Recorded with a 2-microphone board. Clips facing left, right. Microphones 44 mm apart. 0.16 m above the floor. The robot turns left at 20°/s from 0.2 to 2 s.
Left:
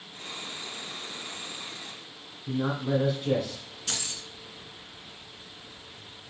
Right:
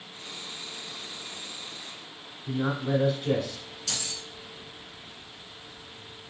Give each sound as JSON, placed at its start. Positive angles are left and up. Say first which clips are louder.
{"t": 2.5, "sound": "a man speaking", "louder": "even", "side_deg": 0, "distance_m": 1.1}
{"t": 3.9, "sound": "keys jangling", "louder": "even", "side_deg": 40, "distance_m": 1.2}